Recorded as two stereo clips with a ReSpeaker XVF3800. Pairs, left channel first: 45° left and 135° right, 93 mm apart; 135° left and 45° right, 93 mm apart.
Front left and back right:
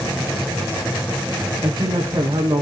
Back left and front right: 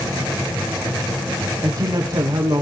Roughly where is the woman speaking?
Right.